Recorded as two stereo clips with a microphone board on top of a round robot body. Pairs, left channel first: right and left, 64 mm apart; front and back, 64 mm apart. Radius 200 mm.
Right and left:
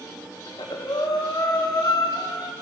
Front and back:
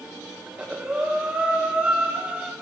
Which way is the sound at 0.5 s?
110° right.